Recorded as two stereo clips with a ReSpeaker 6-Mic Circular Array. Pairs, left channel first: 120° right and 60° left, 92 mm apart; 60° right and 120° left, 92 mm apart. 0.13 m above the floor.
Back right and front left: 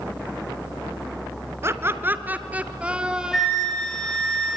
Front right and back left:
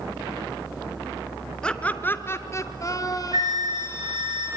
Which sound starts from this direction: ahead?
Laughter, at 1.6 s.